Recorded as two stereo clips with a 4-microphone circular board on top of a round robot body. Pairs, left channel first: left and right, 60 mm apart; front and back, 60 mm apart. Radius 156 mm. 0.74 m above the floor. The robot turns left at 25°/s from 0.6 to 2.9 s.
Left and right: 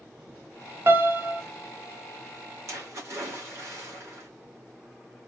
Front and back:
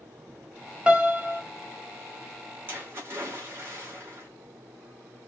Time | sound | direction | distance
0.9 | a piano | 110° right | 1.1 m
2.7 | a splash | 125° right | 2 m